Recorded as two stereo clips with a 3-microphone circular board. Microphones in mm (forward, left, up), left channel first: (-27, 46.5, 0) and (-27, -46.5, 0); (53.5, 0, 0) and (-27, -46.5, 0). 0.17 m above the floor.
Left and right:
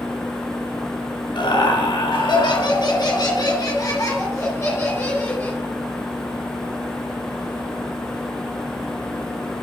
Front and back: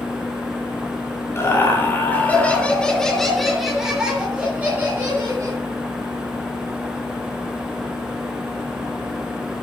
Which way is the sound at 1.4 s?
85° left.